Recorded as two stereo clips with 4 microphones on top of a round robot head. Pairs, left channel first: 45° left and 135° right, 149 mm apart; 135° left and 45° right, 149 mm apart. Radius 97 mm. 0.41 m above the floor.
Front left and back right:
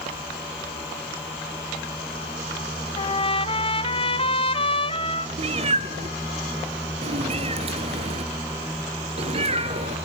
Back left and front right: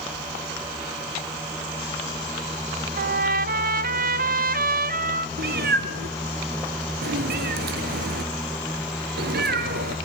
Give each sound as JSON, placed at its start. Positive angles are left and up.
{"t": 3.0, "sound": "a trumpet", "azimuth_deg": -10, "distance_m": 0.8}
{"t": 5.4, "sound": "a cat meowing", "azimuth_deg": -80, "distance_m": 1.5}